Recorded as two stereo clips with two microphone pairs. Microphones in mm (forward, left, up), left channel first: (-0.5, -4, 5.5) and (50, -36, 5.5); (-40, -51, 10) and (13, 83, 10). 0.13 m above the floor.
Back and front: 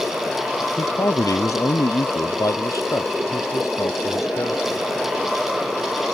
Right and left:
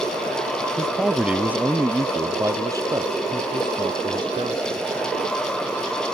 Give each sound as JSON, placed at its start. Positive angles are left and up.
{"t": 0.8, "sound": "a man speaking", "azimuth_deg": 160}